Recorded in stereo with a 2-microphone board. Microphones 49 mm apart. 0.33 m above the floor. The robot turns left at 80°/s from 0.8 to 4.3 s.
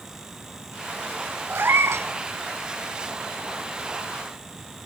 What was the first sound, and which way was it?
A cat meowing, 45° right.